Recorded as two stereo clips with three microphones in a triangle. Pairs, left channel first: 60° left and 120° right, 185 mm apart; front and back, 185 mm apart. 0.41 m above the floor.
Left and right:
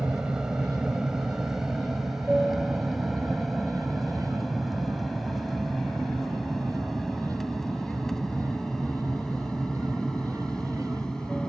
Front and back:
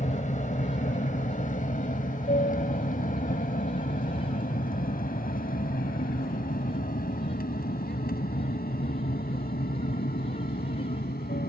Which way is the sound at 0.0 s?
35° right.